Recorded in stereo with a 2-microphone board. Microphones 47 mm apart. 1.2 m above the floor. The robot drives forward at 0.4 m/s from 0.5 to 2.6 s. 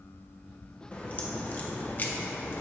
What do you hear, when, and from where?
0.9 s a crack: 25° left (ahead or behind), 1.1 m; by 2.6 s 45° left (ahead or behind), 0.7 m